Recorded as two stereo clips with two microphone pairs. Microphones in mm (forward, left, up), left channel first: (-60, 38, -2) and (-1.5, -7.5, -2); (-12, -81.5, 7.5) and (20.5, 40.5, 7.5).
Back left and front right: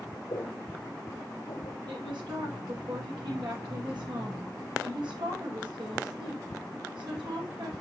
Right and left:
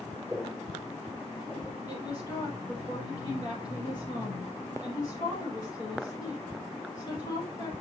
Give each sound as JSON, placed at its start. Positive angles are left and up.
{"t": 0.3, "sound": "footsteps", "azimuth_deg": 175, "distance_m": 4.0}
{"t": 1.9, "sound": "a woman speaking", "azimuth_deg": -50, "distance_m": 8.0}